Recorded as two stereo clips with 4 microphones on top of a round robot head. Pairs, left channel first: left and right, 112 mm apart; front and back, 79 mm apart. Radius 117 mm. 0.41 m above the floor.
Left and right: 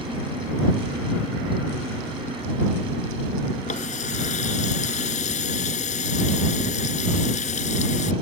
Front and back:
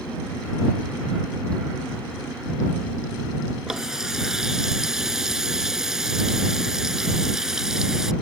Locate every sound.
3.7 s a running tap: 95° left